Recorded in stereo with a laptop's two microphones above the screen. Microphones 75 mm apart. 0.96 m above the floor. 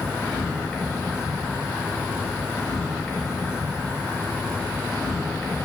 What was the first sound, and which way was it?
An insect, 20° left (ahead or behind).